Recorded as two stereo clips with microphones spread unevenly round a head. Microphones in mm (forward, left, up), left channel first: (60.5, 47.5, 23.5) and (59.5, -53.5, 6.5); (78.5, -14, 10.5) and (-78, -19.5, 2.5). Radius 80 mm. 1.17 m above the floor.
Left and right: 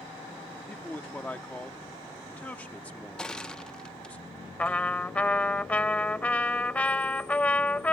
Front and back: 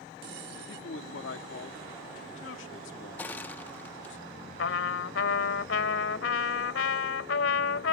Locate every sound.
0.6 s a man speaking: 15° left
3.2 s crushing: 55° left
4.6 s a trumpet: 15° left